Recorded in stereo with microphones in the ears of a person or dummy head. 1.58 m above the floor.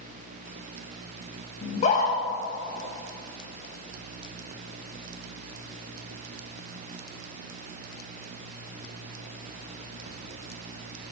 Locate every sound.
1.6 s a scream: 50° left (ahead or behind), 1.6 m